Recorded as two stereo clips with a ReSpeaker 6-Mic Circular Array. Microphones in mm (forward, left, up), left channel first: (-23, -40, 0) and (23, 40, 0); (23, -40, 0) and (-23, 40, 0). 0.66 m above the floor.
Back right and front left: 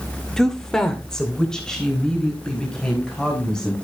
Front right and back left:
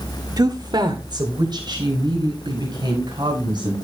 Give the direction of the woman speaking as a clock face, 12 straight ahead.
7 o'clock.